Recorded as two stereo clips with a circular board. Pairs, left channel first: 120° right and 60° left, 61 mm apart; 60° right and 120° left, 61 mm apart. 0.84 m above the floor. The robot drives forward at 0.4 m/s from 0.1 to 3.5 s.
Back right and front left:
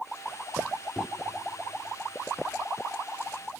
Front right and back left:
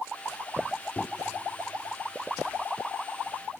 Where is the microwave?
15° right, 0.8 m.